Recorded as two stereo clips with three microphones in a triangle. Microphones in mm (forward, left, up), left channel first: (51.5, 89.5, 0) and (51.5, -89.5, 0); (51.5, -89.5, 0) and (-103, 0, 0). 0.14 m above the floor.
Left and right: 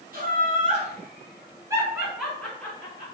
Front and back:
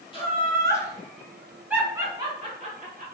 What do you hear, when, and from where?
0.1 s laughter: 85° right, 2.0 m; by 3.0 s 155° left, 1.7 m